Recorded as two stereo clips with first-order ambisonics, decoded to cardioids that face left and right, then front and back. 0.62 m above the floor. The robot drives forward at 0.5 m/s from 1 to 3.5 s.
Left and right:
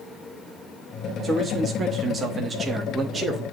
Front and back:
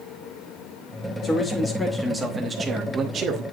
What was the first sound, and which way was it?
A man speaking, 40° right.